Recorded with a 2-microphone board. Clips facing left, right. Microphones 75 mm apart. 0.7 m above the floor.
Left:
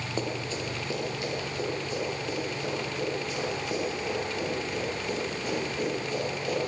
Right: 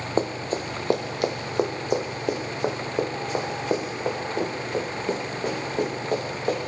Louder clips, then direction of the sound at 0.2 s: Right 7 dB; 40° right (ahead or behind).